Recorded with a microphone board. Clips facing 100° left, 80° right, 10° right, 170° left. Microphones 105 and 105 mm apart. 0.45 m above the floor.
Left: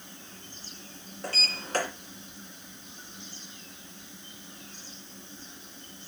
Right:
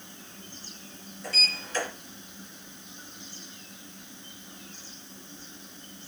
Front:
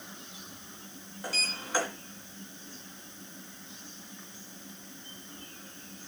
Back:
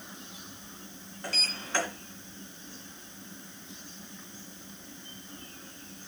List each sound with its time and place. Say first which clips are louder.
1.2 s a sliding door: left 1 dB, front 1 dB; 70° left, 2.5 m